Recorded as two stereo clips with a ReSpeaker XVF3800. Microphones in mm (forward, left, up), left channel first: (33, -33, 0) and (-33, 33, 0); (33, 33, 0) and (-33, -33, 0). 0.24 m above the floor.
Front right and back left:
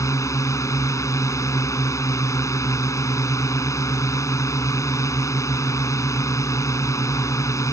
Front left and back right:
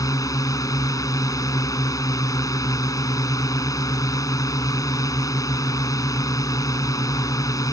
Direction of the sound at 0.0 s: Straight ahead.